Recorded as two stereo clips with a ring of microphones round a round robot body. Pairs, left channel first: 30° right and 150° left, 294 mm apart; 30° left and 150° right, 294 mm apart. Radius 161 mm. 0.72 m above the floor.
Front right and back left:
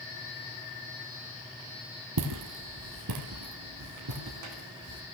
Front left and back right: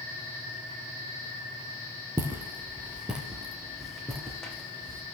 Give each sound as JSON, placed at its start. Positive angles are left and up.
{"t": 2.2, "sound": "footsteps", "azimuth_deg": 130, "distance_m": 1.6}